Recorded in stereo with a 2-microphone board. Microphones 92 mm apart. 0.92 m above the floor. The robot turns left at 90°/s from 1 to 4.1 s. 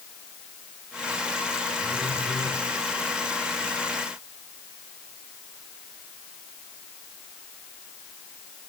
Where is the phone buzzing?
105° left, 8.5 m; by 2.5 s 40° left, 8.5 m.